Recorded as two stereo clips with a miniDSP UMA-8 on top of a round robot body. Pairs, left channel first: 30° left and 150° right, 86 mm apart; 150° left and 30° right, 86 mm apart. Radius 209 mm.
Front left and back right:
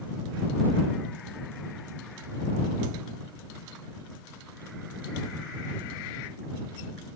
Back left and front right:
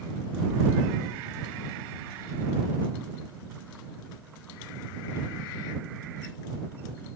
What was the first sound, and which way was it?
Only background noise.